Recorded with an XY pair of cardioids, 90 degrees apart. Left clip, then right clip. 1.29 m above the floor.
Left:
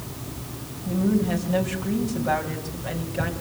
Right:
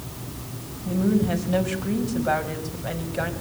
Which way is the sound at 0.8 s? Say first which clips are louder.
Right 1 dB; 25° right.